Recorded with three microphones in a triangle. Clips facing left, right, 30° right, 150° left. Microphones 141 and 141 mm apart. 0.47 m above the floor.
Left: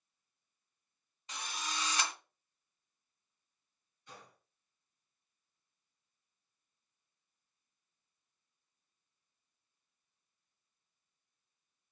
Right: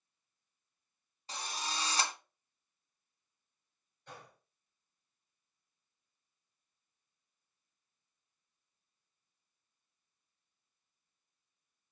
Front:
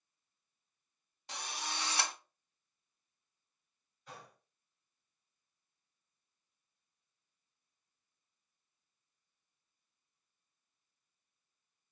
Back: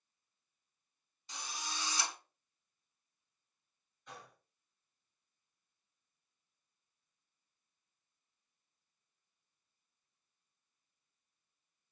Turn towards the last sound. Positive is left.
turn(degrees=-115)